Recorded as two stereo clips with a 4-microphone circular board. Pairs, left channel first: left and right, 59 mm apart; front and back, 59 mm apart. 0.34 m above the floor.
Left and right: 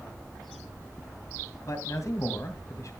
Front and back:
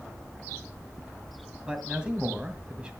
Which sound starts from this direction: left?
A man speaking, at 1.7 s.